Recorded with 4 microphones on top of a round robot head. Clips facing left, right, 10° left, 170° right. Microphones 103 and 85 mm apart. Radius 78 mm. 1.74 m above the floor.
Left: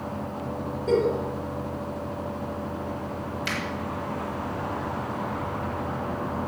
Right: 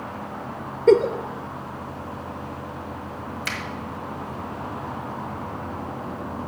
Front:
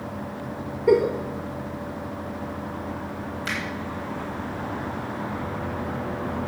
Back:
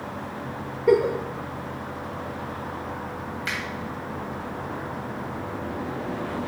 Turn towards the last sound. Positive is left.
turn(degrees=-55)